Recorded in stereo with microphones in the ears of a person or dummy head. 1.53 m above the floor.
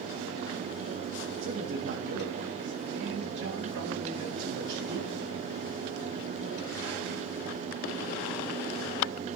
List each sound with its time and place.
1.4 s a man speaking: 70° right (ahead or behind), 3 m